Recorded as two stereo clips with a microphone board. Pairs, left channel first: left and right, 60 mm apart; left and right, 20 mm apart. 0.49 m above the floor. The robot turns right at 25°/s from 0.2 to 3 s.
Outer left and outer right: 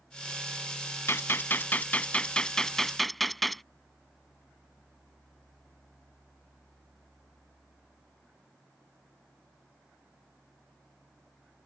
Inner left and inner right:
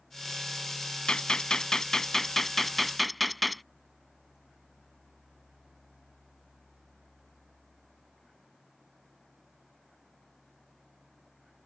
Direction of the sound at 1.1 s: 130° left.